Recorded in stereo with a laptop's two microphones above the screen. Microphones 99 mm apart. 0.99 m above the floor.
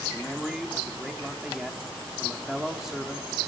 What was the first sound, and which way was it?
A man speaking, 5° right (ahead or behind).